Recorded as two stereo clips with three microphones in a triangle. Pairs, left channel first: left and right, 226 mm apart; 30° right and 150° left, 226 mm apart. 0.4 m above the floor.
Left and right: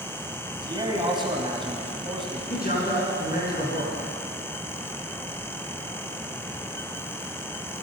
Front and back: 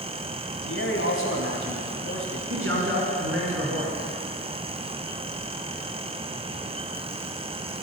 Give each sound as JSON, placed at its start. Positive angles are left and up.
{"t": 0.5, "sound": "a man speaking", "azimuth_deg": -20, "distance_m": 2.5}
{"t": 2.5, "sound": "a man speaking", "azimuth_deg": 135, "distance_m": 4.5}